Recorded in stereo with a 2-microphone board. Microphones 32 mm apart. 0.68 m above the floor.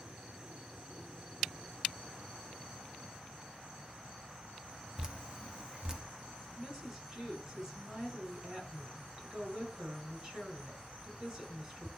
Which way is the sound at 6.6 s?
20° right (ahead or behind).